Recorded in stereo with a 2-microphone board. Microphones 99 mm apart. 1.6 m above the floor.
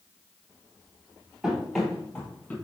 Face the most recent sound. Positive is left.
turn(degrees=15)  # may be behind; listen again after turning